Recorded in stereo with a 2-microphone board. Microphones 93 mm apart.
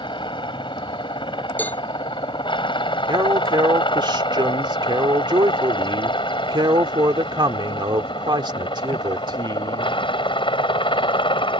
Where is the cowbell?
20° left (ahead or behind).